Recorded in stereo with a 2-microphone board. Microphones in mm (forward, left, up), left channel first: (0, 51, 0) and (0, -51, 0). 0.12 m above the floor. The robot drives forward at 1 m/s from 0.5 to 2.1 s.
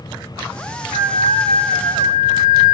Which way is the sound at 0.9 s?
75° right (ahead or behind).